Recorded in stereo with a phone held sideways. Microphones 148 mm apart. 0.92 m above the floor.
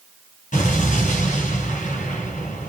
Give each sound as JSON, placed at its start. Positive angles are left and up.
{"t": 0.5, "sound": "an explosion", "side_deg": 65, "distance_m": 1.6}